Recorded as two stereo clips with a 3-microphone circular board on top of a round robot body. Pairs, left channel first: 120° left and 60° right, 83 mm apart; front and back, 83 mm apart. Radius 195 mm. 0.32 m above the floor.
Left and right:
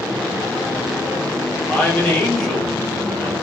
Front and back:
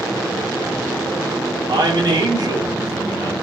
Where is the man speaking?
160° right, 3 m.